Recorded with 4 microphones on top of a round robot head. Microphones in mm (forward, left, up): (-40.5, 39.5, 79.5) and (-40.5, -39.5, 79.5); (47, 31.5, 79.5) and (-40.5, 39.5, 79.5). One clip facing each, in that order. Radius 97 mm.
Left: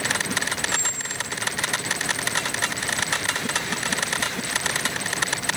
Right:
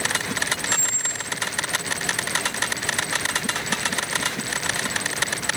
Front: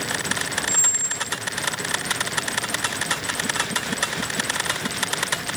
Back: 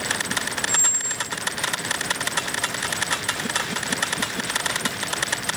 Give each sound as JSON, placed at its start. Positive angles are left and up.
{"t": 0.7, "sound": "a squeak", "azimuth_deg": -55, "distance_m": 1.6}